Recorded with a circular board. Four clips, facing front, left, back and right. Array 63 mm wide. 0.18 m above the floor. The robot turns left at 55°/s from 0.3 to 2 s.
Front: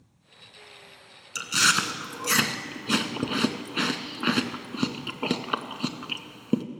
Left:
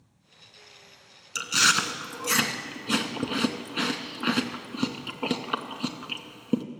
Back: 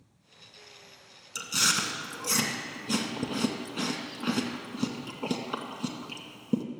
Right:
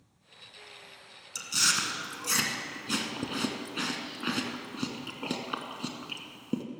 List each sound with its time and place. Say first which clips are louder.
1.4 s chewing: left 8 dB, front 6 dB; 60° left, 0.7 m; by 6.6 s 25° left, 0.7 m